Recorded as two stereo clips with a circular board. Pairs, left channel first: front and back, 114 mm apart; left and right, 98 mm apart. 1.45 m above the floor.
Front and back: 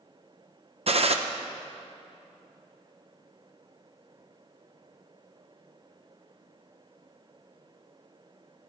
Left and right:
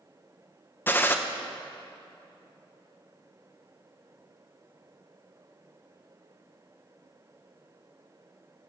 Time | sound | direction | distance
0.9 | a gunshot | 160° left | 0.8 m